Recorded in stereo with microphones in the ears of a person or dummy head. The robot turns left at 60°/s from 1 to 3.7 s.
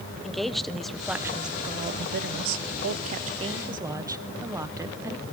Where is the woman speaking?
Straight ahead, 0.8 m; by 5.2 s 160° right, 0.8 m.